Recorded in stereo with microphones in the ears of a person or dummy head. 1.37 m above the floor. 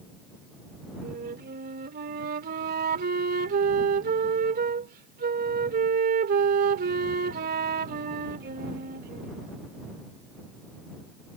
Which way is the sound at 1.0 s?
50° right (ahead or behind).